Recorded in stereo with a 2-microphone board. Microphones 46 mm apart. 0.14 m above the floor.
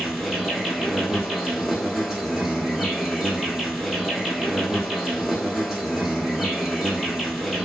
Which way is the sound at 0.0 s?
10° right (ahead or behind).